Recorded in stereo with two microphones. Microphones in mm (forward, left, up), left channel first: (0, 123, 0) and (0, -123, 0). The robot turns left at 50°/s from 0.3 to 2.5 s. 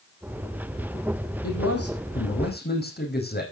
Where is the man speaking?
95° left, 4.5 m; by 3.4 s 45° left, 4.5 m.